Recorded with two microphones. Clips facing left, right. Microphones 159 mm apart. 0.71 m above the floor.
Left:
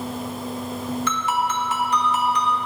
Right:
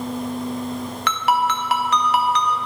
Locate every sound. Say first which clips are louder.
1.1 s a ringtone: right 7 dB; 70° right (ahead or behind), 0.9 m